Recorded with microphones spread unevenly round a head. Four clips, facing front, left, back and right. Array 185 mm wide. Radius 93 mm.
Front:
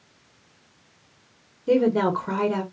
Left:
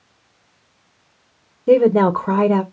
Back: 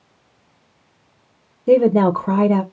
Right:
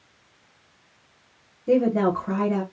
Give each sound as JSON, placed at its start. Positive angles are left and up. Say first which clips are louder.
{"t": 1.7, "sound": "a woman speaking", "louder": "left 7 dB, back 6 dB", "azimuth_deg": 130, "distance_m": 0.9}